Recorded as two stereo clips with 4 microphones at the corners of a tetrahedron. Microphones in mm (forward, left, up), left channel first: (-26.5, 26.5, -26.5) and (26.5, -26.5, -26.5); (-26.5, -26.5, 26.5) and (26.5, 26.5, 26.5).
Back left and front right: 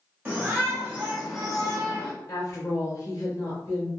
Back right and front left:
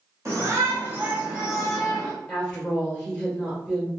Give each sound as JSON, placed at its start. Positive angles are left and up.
{"t": 0.2, "sound": "a shout", "azimuth_deg": 10, "distance_m": 1.8}
{"t": 2.3, "sound": "a woman speaking", "azimuth_deg": 145, "distance_m": 1.7}